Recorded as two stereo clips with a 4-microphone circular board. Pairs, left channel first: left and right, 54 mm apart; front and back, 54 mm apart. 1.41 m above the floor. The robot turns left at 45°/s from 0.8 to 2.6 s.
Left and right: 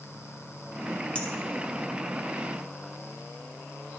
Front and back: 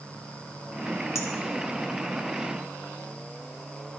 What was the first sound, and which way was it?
A clink, 25° left.